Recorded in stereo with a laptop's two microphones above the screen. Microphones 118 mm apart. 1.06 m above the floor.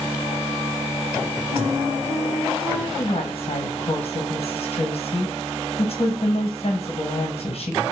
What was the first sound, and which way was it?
A flute, 35° right (ahead or behind).